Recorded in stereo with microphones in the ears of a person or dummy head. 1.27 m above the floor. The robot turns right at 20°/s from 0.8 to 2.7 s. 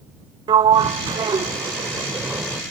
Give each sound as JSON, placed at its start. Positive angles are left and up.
{"t": 0.5, "sound": "a sliding door", "azimuth_deg": -50}